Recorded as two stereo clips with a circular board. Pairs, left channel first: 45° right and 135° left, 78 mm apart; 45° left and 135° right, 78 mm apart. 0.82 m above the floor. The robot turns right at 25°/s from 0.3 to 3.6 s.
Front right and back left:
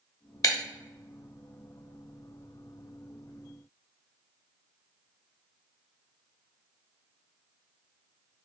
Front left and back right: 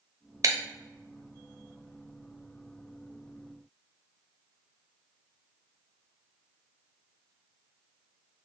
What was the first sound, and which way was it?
Breaking glass, 90° right.